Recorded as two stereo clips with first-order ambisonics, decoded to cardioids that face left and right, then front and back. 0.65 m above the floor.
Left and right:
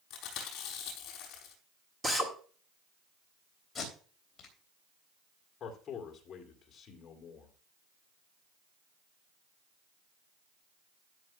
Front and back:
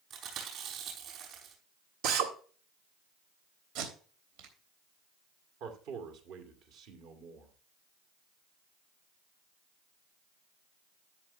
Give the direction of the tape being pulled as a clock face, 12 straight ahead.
6 o'clock.